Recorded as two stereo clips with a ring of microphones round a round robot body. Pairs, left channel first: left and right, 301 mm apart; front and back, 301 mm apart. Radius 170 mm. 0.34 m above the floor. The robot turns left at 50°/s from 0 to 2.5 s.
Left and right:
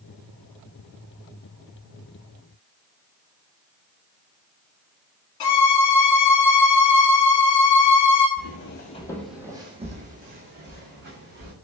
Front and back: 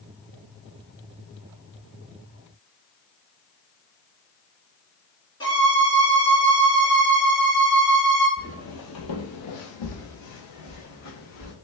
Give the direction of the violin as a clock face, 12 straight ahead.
9 o'clock.